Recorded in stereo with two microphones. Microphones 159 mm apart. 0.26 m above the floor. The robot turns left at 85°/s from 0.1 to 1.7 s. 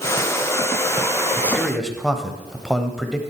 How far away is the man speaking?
About 1.0 m.